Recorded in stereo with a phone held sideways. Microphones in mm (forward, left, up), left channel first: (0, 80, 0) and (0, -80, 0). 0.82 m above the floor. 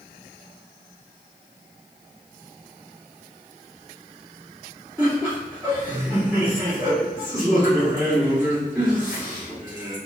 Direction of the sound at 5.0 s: Centre (ahead or behind).